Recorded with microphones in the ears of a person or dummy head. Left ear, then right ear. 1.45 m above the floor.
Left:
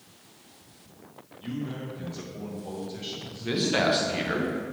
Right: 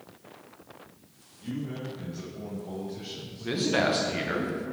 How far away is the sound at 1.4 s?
About 1.9 m.